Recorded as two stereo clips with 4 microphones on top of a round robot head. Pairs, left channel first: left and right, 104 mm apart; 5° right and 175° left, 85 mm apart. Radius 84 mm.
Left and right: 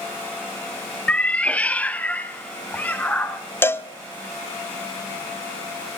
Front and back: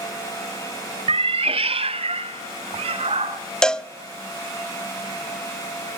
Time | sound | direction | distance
1.1 | a cat meowing | 170° left | 0.5 m
3.6 | a cowbell | 70° left | 0.6 m